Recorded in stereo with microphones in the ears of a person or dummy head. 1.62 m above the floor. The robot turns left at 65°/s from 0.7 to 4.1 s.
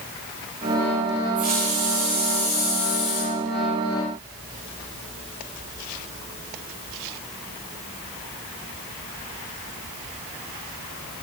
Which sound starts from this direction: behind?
A hiss, at 1.4 s.